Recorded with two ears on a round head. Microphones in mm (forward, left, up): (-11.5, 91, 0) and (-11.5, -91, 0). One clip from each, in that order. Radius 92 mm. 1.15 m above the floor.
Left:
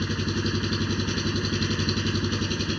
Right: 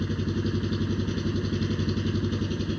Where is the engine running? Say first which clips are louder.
Left 3 dB; 65° left (ahead or behind).